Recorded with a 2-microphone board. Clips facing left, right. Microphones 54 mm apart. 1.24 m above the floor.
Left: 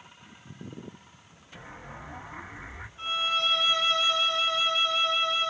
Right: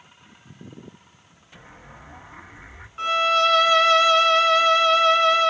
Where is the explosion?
5° left (ahead or behind), 1.4 m.